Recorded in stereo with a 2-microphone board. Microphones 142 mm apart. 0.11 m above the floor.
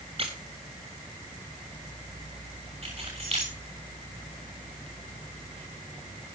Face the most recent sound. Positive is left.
turn(degrees=-45)  # may be behind; listen again after turning